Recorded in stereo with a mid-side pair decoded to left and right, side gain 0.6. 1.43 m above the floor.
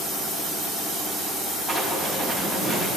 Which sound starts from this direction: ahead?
Writing, at 1.7 s.